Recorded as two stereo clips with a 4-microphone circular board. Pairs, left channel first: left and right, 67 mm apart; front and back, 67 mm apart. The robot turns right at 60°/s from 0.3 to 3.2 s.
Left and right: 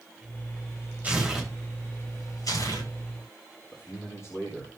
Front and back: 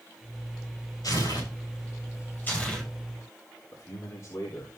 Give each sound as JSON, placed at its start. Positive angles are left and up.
{"t": 1.0, "sound": "tearing paper", "azimuth_deg": -25, "distance_m": 6.5}
{"t": 3.7, "sound": "a man speaking", "azimuth_deg": 45, "distance_m": 3.5}